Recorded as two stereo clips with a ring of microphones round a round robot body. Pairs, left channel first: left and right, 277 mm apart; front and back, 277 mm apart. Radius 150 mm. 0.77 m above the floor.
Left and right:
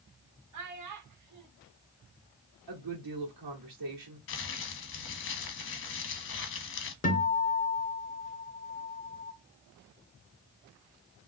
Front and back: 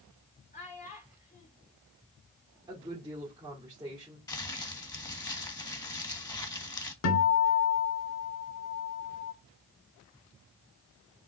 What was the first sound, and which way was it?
A child speaking, 70° right.